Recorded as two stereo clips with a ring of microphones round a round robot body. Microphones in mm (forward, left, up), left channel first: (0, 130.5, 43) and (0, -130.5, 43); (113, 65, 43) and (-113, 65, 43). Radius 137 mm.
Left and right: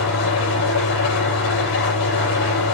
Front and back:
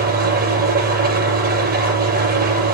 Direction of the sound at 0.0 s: 135° left.